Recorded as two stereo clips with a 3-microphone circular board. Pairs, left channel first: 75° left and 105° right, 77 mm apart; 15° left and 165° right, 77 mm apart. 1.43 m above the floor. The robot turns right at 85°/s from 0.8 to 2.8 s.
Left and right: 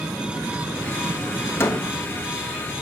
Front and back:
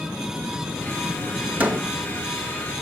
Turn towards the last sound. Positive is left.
turn(degrees=-130)